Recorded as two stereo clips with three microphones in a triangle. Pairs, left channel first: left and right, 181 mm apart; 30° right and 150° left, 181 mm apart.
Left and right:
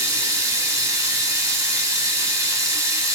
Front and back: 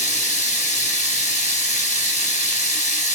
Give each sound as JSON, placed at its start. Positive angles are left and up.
{"t": 0.0, "sound": "running water", "azimuth_deg": -25, "distance_m": 0.8}